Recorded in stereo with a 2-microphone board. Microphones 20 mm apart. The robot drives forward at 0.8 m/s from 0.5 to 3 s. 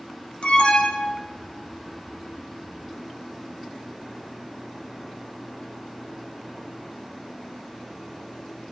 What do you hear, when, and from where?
0.4 s an alarm: 65° left (ahead or behind), 1.4 m; by 1.4 s 55° left (ahead or behind), 1.5 m